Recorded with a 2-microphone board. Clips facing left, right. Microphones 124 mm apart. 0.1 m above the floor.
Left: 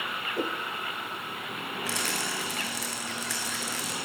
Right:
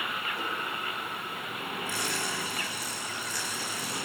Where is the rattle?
80° left, 7.5 m.